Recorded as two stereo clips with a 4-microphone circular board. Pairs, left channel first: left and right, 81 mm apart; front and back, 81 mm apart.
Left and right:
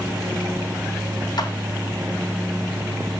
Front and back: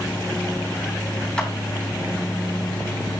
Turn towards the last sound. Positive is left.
turn(degrees=80)